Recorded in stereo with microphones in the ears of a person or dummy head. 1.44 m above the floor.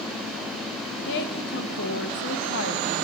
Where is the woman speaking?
65° left (ahead or behind), 1.5 m.